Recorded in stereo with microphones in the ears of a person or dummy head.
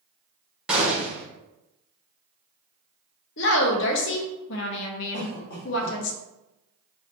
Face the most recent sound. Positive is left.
turn(degrees=60)  # may be behind; listen again after turning